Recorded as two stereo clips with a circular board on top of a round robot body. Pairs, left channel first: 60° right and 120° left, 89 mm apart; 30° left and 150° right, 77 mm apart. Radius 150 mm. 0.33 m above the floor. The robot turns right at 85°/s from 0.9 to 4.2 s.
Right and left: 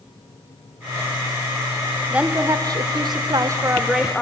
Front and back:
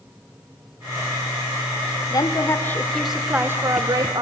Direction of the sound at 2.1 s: 40° left.